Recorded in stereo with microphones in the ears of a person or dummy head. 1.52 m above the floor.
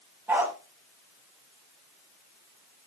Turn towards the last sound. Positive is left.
turn(degrees=-15)  # may be behind; listen again after turning